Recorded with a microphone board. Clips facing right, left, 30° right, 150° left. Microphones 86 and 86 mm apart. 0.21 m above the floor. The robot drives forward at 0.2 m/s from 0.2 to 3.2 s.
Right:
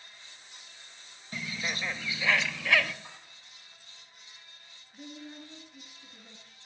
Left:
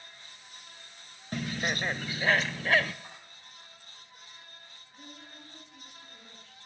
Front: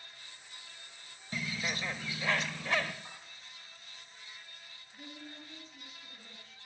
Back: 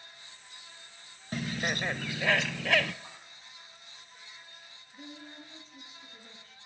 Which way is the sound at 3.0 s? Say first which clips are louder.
Left 1 dB, even; 140° left.